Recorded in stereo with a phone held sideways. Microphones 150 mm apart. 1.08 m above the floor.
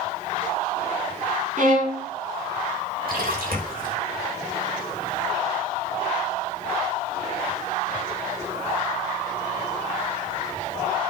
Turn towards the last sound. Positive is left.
turn(degrees=-75)  # may be behind; listen again after turning